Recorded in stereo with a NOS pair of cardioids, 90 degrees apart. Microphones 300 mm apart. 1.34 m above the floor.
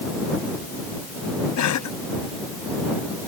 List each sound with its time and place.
1.6 s a cough: 65° left